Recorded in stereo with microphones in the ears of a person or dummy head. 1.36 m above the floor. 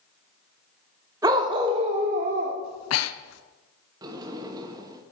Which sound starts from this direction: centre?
A dog barking, at 1.2 s.